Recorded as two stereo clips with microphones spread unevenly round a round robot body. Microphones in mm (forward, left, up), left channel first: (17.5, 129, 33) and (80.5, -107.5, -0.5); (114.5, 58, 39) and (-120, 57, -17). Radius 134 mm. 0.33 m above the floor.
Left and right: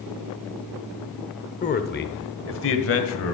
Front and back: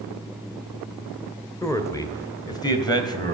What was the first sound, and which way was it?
A man speaking, 100° left.